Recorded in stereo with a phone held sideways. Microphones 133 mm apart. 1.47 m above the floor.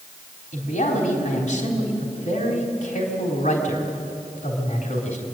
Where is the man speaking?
75° left (ahead or behind), 4.5 m.